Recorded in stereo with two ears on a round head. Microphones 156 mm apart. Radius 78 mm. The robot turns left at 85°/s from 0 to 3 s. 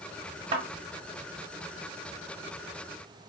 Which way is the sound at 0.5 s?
35° right (ahead or behind).